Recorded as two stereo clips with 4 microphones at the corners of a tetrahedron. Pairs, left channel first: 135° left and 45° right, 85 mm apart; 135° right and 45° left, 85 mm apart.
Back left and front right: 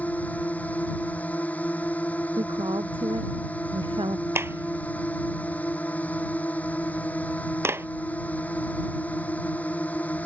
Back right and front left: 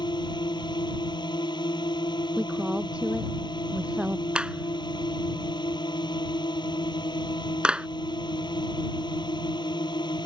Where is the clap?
25° right.